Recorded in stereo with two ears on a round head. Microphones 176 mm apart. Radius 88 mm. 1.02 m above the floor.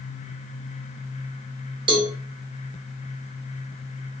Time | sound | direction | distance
1.9 | a cowbell | 25° right (ahead or behind) | 0.9 m